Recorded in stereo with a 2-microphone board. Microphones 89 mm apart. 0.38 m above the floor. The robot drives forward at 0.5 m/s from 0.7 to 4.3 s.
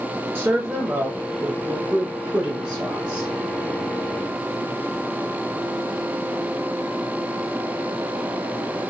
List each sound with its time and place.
0.3 s a woman speaking: 25° right (ahead or behind), 0.9 m; by 3.3 s 15° right (ahead or behind), 1.7 m